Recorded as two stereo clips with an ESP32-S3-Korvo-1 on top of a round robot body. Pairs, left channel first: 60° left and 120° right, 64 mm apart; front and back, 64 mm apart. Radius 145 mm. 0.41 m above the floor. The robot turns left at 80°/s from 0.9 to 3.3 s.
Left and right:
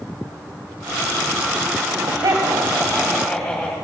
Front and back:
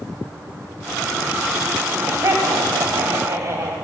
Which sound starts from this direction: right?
Laughter, at 1.8 s.